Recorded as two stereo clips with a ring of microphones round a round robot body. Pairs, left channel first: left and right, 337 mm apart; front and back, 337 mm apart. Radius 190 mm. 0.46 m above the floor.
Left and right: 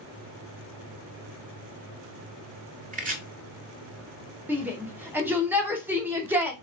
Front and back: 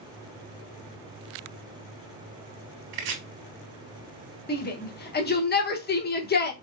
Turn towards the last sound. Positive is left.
turn(degrees=-10)